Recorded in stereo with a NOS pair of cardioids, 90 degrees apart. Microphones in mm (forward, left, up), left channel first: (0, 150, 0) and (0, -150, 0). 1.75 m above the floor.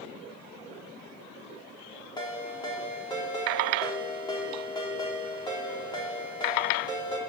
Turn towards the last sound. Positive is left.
turn(degrees=15)